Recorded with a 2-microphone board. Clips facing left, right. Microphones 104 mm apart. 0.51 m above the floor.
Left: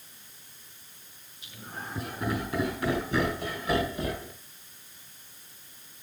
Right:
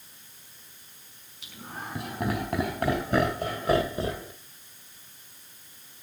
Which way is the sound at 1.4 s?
75° right (ahead or behind).